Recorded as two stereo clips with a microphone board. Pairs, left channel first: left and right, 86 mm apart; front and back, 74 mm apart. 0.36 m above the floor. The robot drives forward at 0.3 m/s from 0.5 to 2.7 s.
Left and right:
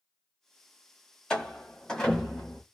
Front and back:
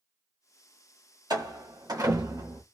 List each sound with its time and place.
1.3 s a door slam: 170° left, 1.6 m